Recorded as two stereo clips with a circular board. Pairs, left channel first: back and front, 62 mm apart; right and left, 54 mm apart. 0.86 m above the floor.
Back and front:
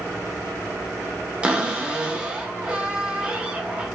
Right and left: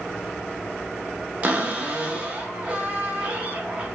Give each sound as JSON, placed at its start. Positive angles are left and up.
{"t": 1.4, "sound": "a cupboard door", "azimuth_deg": 55, "distance_m": 0.5}